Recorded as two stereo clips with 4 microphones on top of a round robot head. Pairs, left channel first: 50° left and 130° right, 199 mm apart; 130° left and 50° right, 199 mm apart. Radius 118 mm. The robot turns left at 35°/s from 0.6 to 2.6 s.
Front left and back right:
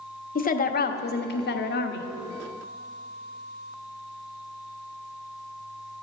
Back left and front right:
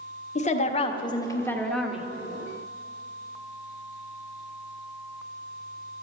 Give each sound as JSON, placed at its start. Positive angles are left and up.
{"t": 0.3, "sound": "a woman speaking", "azimuth_deg": 85, "distance_m": 1.1}